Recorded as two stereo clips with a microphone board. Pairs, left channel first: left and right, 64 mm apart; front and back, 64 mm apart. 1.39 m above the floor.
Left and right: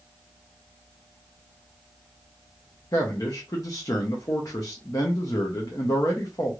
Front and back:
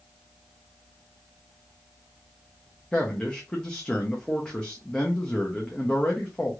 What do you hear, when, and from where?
2.9 s a man speaking: 75° left, 0.7 m